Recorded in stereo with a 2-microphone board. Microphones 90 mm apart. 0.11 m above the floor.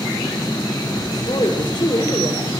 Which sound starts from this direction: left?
A woman speaking, at 1.1 s.